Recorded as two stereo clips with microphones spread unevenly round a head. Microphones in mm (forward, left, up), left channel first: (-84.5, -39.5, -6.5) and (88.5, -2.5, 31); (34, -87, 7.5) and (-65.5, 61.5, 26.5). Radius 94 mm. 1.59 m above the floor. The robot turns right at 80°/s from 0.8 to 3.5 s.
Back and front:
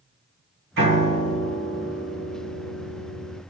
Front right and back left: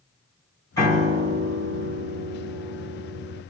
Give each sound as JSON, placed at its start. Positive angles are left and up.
{"t": 0.8, "sound": "a piano", "azimuth_deg": 20, "distance_m": 3.5}